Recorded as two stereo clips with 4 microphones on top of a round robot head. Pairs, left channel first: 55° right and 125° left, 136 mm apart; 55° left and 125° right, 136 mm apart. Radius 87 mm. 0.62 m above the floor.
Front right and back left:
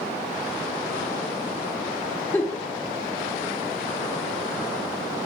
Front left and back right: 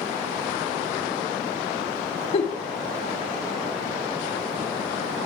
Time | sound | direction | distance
2.3 | a giggle | 20° left | 1.5 m